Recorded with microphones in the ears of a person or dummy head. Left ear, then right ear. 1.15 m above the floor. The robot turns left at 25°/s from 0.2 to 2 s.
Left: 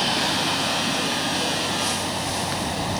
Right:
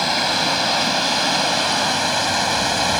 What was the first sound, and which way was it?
Running water, 30° right.